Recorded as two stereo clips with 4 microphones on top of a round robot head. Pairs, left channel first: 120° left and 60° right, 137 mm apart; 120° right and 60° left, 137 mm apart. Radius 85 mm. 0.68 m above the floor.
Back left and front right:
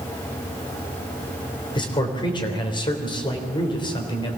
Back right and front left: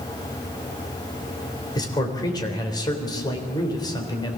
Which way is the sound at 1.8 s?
Straight behind.